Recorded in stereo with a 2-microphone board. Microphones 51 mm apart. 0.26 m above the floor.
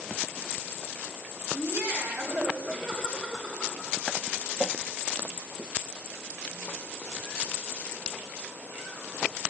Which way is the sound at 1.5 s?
45° right (ahead or behind).